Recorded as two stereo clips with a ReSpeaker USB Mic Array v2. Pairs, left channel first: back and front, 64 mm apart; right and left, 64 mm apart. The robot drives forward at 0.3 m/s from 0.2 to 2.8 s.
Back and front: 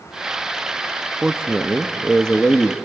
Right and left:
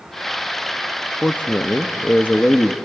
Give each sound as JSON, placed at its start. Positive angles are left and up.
{"t": 1.2, "sound": "a man speaking", "azimuth_deg": -55, "distance_m": 0.7}